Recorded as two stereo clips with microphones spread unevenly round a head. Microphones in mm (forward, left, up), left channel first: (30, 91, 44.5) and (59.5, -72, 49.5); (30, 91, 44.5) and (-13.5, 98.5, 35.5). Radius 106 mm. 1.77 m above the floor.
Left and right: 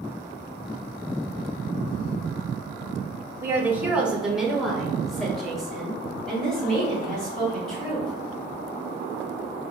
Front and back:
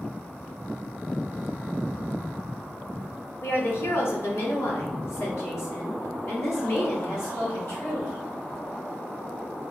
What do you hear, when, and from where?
3.4 s a woman speaking: 10° right, 0.5 m; by 8.1 s 15° left, 3 m